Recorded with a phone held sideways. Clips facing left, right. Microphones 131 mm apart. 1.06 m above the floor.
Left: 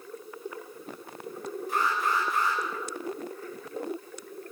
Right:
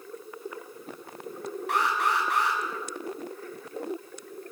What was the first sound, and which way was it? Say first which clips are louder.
An alarm: right 2 dB; 75° right (ahead or behind).